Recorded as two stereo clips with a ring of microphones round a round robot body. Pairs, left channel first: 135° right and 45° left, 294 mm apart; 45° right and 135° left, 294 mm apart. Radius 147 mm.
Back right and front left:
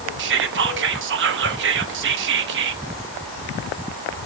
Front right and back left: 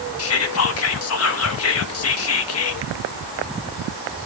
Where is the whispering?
5° right, 1.2 m.